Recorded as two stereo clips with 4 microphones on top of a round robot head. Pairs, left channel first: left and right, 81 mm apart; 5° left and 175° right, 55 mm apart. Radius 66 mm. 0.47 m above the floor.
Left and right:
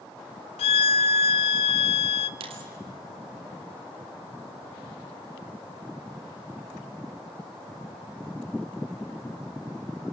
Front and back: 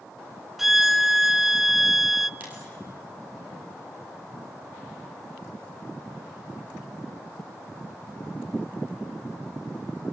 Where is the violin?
100° left, 0.5 m.